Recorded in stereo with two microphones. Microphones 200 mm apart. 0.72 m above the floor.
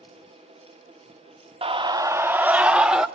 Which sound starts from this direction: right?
A scream, at 1.6 s.